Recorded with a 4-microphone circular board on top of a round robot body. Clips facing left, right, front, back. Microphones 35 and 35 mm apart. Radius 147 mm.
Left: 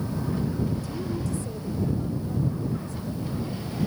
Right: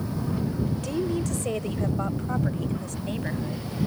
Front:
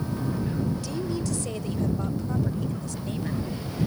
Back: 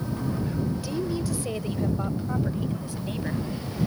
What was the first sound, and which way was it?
A woman speaking, 100° right.